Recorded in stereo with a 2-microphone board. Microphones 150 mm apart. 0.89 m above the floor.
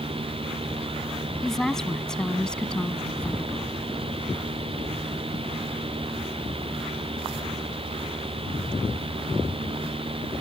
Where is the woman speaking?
Centre (ahead or behind); by 3.7 s 10° left (ahead or behind).